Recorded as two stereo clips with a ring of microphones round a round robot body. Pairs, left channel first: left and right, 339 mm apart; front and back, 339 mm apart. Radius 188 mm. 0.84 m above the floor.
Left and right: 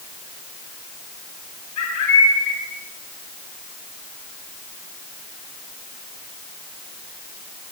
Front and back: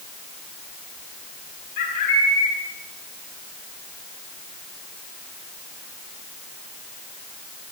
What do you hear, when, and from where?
1.8 s a bird: 40° left, 5 m